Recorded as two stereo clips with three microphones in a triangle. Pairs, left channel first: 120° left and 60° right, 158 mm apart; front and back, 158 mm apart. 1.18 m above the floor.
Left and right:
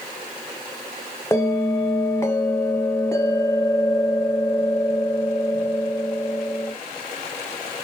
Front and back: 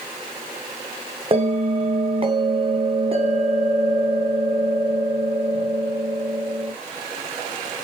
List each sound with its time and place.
1.3 s a bell: straight behind, 0.5 m